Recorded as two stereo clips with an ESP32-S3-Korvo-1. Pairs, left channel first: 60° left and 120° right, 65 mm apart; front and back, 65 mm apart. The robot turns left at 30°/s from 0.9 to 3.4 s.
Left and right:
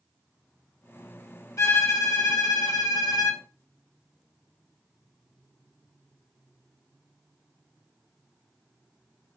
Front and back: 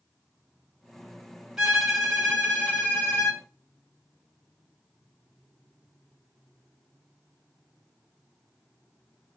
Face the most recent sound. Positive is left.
turn(degrees=45)